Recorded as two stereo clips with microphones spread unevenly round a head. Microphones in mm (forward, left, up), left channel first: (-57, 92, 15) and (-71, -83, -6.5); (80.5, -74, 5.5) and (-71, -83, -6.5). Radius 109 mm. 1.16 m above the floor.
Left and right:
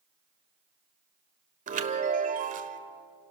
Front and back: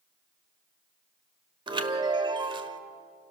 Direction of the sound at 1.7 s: 125° right.